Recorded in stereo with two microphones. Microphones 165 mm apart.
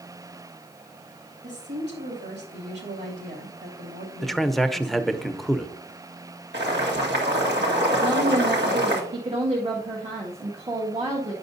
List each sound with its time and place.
1.4 s a woman speaking: 75° right (ahead or behind), 2.5 m
4.2 s a man speaking: centre (ahead or behind), 0.7 m
6.5 s boiling: 85° right, 2.0 m
8.0 s a woman speaking: 35° right (ahead or behind), 1.7 m